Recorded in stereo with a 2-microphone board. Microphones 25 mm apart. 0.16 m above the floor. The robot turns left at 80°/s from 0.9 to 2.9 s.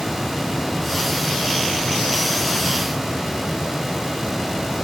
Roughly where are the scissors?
No scissors in this recording.